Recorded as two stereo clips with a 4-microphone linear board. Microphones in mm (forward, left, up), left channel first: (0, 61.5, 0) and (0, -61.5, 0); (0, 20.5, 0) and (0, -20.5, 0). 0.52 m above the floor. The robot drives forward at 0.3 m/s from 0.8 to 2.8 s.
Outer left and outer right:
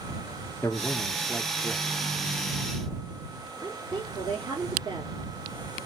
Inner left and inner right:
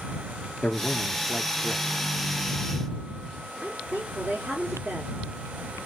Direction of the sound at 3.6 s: 40° right (ahead or behind).